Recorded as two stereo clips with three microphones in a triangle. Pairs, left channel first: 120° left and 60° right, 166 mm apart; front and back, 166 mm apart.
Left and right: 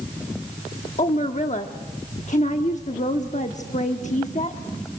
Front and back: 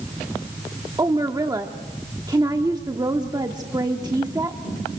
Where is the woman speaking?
125° left, 0.9 m.